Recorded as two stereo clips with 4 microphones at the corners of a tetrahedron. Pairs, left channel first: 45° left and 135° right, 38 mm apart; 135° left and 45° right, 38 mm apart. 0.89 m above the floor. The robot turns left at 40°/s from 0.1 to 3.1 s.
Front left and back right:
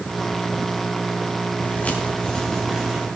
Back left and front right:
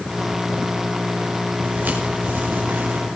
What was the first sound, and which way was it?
Footsteps, 5° left.